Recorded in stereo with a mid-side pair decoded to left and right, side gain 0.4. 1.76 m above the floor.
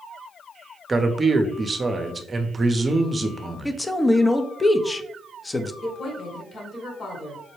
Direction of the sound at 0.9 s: 30° right.